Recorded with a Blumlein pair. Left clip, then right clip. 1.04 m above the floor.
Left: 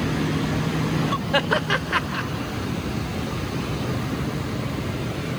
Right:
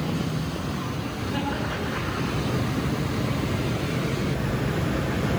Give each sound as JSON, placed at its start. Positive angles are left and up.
{"t": 1.3, "sound": "laughter", "azimuth_deg": 35, "distance_m": 1.8}